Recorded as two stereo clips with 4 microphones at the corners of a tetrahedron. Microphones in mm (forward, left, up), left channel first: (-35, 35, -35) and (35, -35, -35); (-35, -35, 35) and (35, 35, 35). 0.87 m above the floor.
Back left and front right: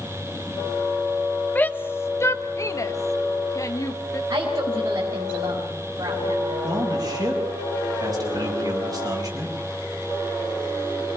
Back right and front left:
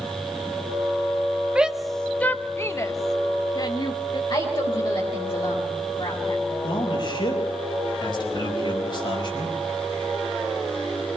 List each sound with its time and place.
1.6 s a shout: 105° left, 1.0 m; by 4.2 s 170° right, 2 m
4.3 s a woman speaking: 100° right, 4.5 m
6.6 s a man speaking: 95° right, 5.5 m